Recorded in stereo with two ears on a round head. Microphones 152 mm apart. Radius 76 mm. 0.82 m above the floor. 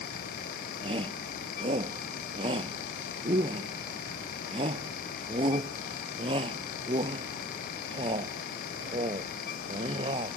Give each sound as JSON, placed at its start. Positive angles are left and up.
{"t": 0.8, "sound": "a shout", "side_deg": -30}